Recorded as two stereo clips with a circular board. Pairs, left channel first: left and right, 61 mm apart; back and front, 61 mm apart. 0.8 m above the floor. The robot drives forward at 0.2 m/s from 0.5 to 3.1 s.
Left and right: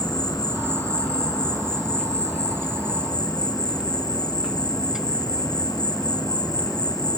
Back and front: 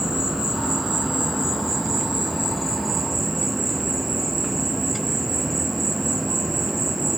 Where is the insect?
85° left, 5 m; by 7.2 s 95° left, 5 m.